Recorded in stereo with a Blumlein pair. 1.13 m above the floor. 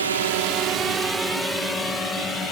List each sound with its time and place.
0.0 s a drone: 70° right; by 2.5 s 15° left